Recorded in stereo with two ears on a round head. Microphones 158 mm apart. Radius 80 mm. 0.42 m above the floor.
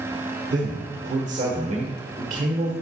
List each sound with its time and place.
0.5 s a man speaking: 40° right (ahead or behind), 1.1 m